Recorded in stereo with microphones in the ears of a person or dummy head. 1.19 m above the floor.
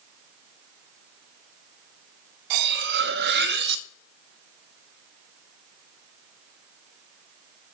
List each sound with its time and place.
2.5 s cutlery clinking: 60° right (ahead or behind), 0.5 m